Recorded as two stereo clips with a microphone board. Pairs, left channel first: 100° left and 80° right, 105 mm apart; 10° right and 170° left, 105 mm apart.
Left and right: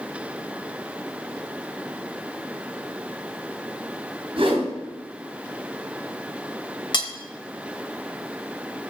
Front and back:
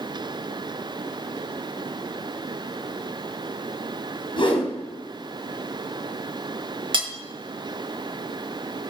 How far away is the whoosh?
About 3.5 m.